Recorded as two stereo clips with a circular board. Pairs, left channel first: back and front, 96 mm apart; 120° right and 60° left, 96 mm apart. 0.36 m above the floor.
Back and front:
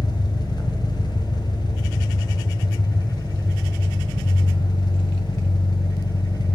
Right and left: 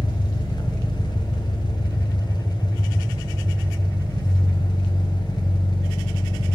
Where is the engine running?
150° right, 1.4 m.